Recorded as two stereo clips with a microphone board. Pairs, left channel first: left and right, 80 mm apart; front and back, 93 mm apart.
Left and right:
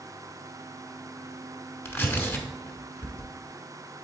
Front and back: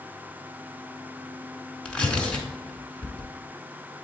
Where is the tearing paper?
70° left, 1.0 m.